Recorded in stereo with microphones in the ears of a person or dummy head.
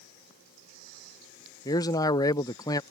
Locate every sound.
1.6 s a man speaking: 25° left (ahead or behind)